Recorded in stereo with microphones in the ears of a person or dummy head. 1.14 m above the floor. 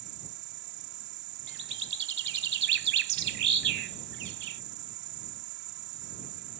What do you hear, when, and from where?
0.0 s an insect: 55° right (ahead or behind)
1.5 s a bird: 70° right (ahead or behind)